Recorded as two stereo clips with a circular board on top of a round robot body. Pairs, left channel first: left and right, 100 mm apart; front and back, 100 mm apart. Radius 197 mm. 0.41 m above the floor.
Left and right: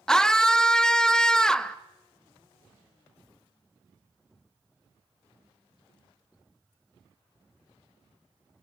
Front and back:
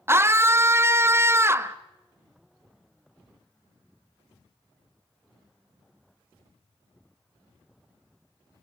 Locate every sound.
0.1 s a scream: 165° left, 1.0 m